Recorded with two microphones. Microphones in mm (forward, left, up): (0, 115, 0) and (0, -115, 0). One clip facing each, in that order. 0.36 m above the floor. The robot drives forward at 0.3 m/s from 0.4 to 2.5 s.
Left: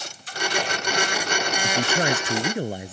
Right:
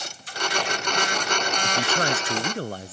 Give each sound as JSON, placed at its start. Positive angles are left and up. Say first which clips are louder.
{"t": 1.6, "sound": "a man speaking", "louder": "left 3 dB", "side_deg": 15}